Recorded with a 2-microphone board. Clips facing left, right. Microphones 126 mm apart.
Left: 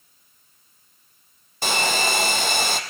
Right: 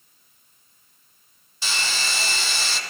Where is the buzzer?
I don't hear a buzzer.